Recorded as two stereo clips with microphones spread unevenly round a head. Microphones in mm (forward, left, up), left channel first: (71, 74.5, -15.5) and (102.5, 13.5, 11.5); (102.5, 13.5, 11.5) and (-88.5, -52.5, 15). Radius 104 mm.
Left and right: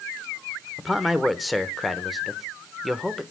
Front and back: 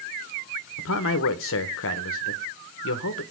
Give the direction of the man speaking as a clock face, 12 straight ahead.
11 o'clock.